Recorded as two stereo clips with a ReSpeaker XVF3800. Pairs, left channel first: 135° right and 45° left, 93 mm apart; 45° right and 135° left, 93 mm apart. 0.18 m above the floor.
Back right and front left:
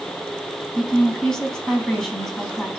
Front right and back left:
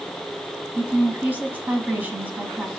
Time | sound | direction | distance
0.8 | a woman speaking | 155° left | 1.0 m